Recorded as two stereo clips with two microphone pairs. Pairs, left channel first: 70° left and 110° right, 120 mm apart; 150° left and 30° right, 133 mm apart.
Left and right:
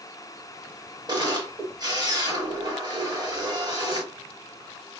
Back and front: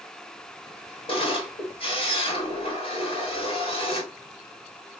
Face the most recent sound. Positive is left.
turn(degrees=-165)